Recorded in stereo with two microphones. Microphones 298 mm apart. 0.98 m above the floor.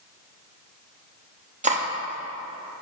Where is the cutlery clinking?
25° right (ahead or behind), 0.8 m.